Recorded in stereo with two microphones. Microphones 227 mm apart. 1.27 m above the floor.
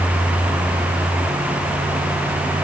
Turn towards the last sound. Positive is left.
No sound to turn to.